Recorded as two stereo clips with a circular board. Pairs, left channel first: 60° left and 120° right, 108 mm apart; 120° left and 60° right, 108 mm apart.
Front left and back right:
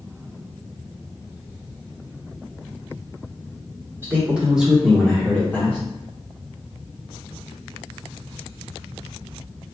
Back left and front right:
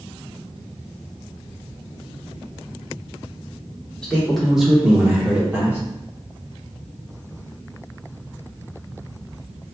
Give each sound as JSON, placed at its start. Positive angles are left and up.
{"t": 4.0, "sound": "a man speaking", "azimuth_deg": -165, "distance_m": 1.1}